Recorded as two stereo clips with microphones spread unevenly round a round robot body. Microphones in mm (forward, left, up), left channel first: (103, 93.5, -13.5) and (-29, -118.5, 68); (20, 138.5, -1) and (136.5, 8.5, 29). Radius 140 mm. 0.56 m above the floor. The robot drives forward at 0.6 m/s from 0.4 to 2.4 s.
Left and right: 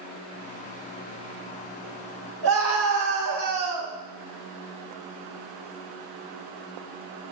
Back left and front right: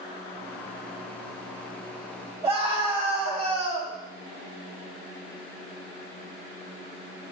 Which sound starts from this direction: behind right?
A scream, at 2.4 s.